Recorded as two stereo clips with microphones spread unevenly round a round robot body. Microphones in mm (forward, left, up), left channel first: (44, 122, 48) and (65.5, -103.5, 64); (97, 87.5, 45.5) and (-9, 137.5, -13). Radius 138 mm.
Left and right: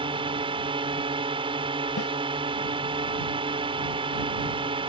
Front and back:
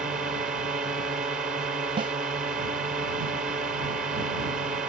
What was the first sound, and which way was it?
A drone, 150° right.